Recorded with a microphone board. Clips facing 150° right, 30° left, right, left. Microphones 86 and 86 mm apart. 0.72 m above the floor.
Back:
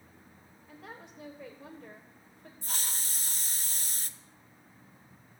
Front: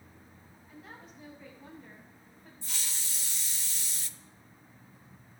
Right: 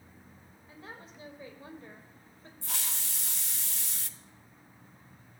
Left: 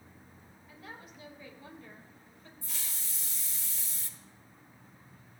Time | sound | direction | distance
0.7 | a woman speaking | 145° right | 3.5 m
2.6 | a hiss | 105° right | 0.7 m